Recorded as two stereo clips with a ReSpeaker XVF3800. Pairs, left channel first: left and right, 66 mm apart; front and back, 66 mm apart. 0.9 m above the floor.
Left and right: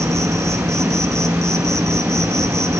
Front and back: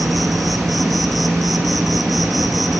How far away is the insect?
About 2 m.